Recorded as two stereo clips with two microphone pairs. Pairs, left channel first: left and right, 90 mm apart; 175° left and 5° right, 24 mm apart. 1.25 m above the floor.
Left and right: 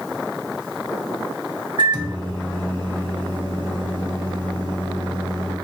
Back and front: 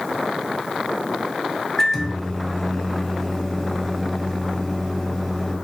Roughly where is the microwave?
Behind right.